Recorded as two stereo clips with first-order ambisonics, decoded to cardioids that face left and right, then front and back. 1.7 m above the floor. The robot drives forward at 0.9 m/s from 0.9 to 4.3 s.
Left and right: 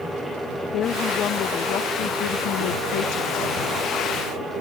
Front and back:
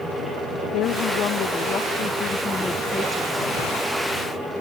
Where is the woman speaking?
40° left; by 3.5 s 95° left.